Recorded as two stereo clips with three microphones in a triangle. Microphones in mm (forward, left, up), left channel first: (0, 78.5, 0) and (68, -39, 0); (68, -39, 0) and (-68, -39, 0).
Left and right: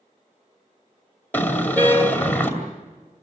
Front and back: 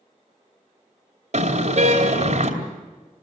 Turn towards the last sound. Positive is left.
turn(degrees=-165)